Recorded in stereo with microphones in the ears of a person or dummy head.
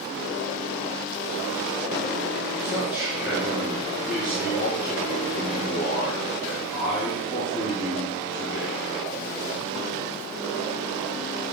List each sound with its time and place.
2.6 s a man speaking: 5° right (ahead or behind), 3 m